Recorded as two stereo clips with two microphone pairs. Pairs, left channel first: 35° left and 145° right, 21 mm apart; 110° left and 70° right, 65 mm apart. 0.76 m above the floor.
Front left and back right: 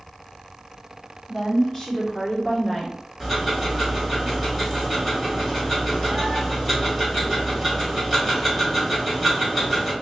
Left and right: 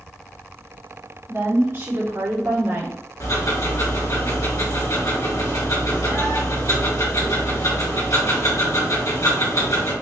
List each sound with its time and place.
1.3 s a woman speaking: 30° right, 2 m; by 3.0 s 45° right, 1.6 m
3.2 s ticking: 115° left, 2.5 m